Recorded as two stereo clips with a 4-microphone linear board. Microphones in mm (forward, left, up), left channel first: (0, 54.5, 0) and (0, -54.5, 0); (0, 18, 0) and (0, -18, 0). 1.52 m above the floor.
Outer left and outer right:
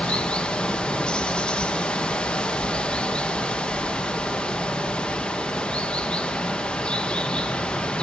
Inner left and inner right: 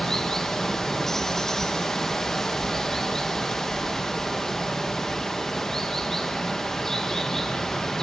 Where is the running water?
10° left (ahead or behind), 0.9 m.